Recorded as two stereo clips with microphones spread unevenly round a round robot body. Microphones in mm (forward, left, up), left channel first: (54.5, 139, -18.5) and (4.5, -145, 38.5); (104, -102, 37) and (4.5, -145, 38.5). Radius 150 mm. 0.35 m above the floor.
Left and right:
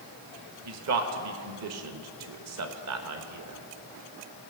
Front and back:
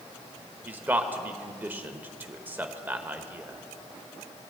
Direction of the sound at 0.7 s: 90° right.